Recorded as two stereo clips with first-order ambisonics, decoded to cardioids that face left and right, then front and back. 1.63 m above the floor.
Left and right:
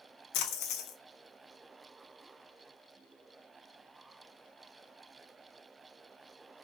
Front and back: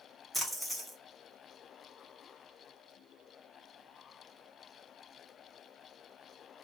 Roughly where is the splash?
Left.